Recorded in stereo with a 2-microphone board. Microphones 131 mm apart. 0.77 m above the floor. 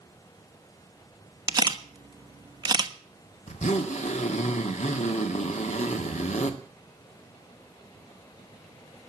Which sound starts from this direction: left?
A zipper, at 3.5 s.